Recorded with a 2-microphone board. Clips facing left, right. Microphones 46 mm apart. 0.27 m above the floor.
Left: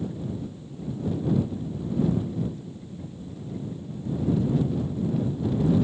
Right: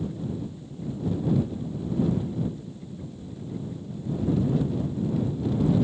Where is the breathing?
No breathing in this recording.